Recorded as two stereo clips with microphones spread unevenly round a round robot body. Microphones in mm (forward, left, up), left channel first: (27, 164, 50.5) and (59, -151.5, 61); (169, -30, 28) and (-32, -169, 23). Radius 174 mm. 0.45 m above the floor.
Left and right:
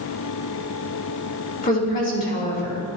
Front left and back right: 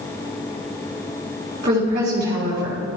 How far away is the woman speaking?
About 5 m.